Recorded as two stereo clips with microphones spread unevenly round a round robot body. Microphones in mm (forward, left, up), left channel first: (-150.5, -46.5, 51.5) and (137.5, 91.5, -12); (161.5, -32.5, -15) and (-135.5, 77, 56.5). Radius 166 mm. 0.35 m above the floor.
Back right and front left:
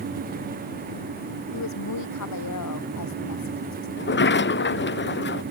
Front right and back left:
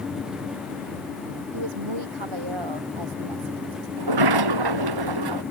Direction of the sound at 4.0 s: 150° left.